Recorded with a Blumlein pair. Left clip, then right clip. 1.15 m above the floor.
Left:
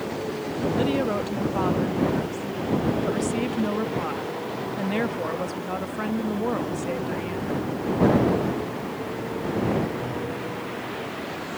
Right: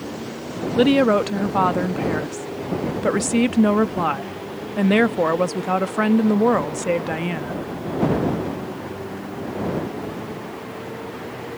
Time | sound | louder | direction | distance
0.8 | a woman speaking | right 11 dB | 30° right | ?